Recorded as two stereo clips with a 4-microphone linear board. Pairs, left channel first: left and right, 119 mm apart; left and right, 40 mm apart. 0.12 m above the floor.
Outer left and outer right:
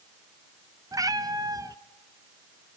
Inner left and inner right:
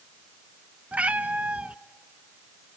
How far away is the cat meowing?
About 0.6 m.